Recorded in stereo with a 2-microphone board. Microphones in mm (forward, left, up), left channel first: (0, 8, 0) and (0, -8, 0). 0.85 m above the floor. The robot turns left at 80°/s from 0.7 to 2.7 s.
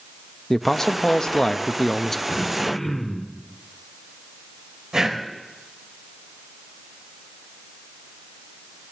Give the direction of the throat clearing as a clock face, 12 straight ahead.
10 o'clock.